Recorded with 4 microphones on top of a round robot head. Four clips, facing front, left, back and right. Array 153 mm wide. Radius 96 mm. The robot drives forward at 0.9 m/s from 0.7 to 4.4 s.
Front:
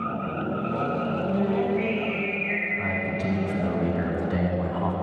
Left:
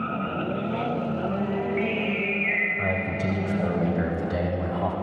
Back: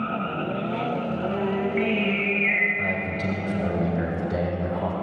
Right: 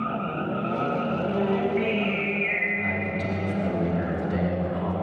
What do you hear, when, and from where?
1.3 s singing: 155° right, 7 m; by 2.7 s 160° right, 8 m
2.8 s a man speaking: 110° left, 3 m; by 4.9 s 130° left, 4 m